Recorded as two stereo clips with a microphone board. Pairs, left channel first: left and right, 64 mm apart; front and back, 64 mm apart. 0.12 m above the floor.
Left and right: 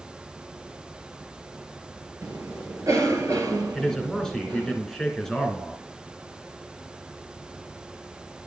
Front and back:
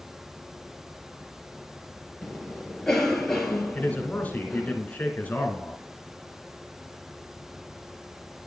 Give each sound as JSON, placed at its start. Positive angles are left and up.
{"t": 2.2, "sound": "a cough", "azimuth_deg": -85, "distance_m": 3.0}
{"t": 3.7, "sound": "a man speaking", "azimuth_deg": 20, "distance_m": 1.8}